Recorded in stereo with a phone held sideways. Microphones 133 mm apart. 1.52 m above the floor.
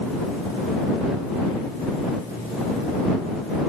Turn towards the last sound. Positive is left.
No sound to turn to.